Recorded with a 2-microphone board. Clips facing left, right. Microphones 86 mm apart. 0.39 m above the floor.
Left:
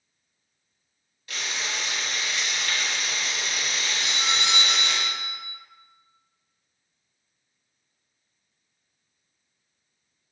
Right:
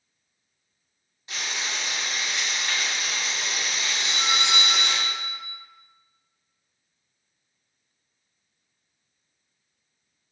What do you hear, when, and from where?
1.3 s frying: 25° right (ahead or behind), 0.9 m
4.0 s a doorbell: 30° right (ahead or behind), 1.9 m